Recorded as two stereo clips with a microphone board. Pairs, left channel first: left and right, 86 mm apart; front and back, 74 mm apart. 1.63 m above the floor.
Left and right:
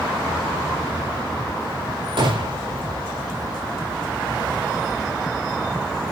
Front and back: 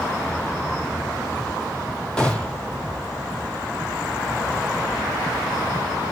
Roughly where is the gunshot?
Right.